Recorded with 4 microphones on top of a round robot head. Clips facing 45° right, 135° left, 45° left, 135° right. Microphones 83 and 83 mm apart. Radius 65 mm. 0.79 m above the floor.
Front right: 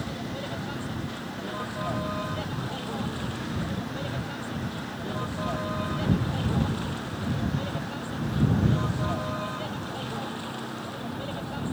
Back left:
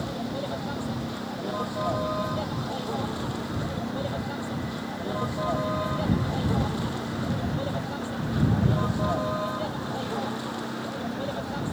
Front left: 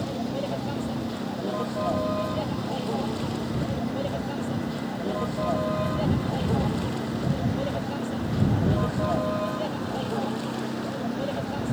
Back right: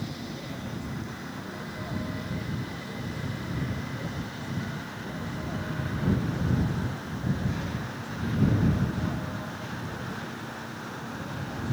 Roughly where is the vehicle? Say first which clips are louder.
Back left 3 dB, front left 8 dB; ahead left.